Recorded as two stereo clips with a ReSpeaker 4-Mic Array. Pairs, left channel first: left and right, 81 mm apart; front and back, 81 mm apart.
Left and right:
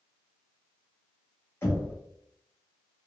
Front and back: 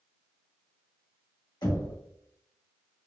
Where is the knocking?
30° left, 1.4 m.